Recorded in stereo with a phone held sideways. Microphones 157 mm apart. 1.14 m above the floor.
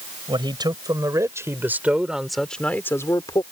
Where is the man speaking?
30° right (ahead or behind); by 3.4 s 30° left (ahead or behind).